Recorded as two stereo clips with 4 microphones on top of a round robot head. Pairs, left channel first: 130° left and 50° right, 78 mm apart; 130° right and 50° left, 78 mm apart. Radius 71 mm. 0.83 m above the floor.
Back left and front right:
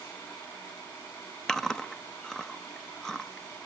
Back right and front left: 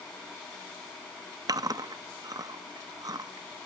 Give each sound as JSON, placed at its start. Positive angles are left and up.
{"t": 1.5, "sound": "chewing", "azimuth_deg": 50, "distance_m": 0.9}